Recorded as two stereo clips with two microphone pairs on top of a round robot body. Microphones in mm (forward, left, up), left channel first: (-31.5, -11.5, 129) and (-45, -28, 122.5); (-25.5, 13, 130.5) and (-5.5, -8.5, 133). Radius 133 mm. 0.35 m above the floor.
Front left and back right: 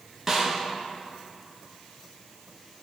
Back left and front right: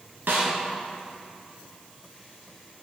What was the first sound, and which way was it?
A snare drum, 45° right.